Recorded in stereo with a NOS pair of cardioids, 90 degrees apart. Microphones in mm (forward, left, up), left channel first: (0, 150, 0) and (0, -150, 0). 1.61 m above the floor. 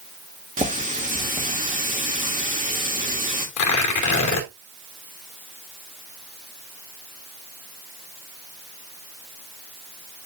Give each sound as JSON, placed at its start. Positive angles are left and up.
{"t": 0.6, "sound": "a running tap", "azimuth_deg": -25, "distance_m": 2.5}
{"t": 3.6, "sound": "tearing paper", "azimuth_deg": 65, "distance_m": 2.5}